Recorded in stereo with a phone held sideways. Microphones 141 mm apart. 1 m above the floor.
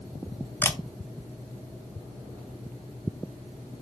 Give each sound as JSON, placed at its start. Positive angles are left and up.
{"t": 0.6, "sound": "a camera shutter", "side_deg": 15, "distance_m": 0.8}